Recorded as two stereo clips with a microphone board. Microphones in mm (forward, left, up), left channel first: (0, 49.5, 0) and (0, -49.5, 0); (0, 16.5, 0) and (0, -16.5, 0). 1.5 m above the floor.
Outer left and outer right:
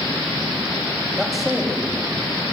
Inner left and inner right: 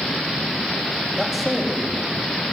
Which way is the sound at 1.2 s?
5° right (ahead or behind).